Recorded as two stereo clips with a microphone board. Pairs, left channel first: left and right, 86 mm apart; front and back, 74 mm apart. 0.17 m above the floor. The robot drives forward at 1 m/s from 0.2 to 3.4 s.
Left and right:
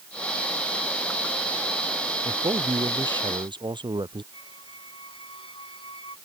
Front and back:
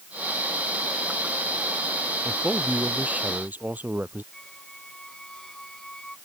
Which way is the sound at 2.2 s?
100° right.